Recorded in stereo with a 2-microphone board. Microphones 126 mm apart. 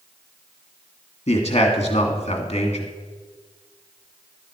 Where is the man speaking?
55° left (ahead or behind), 1.7 m.